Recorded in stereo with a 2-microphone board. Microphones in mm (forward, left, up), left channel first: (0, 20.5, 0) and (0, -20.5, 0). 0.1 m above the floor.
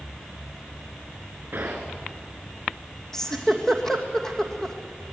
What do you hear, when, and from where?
1.5 s a gunshot: 50° right (ahead or behind), 4 m
3.1 s a giggle: 10° left (ahead or behind), 2.5 m